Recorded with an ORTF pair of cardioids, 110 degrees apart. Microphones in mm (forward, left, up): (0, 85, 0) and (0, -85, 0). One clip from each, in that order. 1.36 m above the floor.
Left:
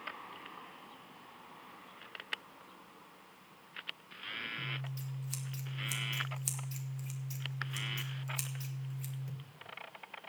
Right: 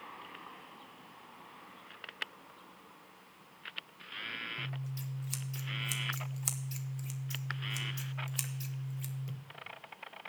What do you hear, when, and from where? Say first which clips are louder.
4.6 s scissors: left 2 dB; 15° right, 1.2 m